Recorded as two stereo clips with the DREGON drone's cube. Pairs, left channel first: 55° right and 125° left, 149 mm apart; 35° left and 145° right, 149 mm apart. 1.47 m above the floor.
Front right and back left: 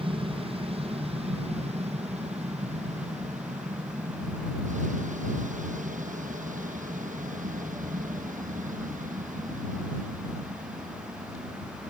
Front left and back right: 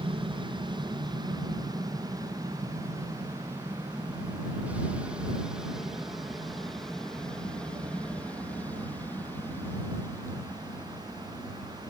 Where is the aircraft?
165° left; by 11.9 s 100° left.